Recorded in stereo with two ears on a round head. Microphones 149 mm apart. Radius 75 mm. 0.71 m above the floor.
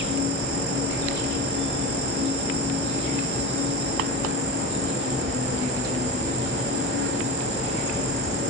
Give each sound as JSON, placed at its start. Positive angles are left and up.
{"t": 0.0, "sound": "an insect", "side_deg": -75, "distance_m": 1.3}